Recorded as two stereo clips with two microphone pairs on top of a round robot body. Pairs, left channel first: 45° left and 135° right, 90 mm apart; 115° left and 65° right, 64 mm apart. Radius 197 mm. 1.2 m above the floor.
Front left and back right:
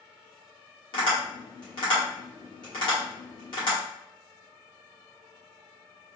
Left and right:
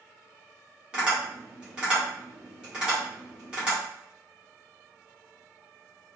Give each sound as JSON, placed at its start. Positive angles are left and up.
{"t": 0.9, "sound": "tapping", "azimuth_deg": 10, "distance_m": 1.2}